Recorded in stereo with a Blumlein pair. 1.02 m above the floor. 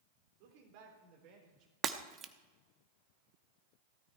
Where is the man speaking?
50° right, 3.5 m; by 1.7 s 35° right, 4.5 m.